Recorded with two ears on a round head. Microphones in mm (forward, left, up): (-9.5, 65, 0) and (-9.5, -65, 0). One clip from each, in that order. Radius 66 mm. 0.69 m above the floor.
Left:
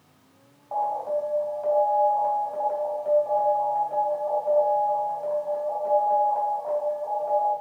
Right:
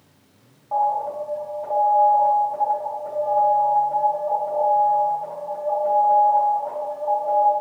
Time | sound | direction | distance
0.7 | an alarm | 45° left (ahead or behind) | 3.5 m